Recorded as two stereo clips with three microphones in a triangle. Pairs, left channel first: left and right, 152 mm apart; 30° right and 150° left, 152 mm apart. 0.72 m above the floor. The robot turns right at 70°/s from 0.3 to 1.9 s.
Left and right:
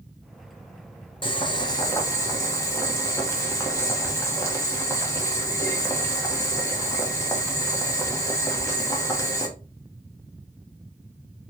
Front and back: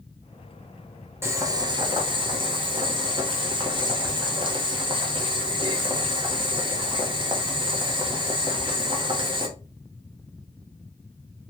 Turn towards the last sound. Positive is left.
turn(degrees=140)